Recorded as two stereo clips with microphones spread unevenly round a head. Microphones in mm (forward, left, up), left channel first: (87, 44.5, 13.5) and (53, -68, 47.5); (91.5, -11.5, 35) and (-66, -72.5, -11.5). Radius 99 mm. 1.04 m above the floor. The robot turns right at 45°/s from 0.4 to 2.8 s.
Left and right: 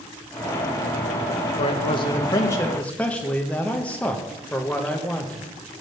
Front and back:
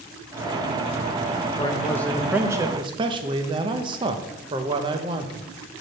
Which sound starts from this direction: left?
A man speaking, at 1.6 s.